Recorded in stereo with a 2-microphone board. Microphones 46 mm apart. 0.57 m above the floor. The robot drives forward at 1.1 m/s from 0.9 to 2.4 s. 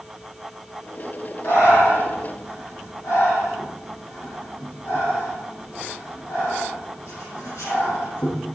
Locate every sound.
1.4 s breathing: 85° left, 9 m